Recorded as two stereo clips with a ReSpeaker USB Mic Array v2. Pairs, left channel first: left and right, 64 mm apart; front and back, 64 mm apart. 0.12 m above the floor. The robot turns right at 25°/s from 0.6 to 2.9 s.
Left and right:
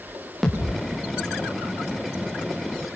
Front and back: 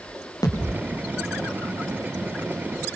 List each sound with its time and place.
0.4 s a thud: straight ahead, 5 m; by 0.8 s 5° left, 5 m